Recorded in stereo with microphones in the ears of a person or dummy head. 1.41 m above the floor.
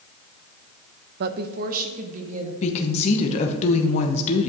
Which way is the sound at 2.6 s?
40° left (ahead or behind).